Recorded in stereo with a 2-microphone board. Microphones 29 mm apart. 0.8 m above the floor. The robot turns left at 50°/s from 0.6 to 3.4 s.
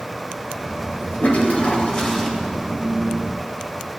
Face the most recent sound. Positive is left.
turn(degrees=-45)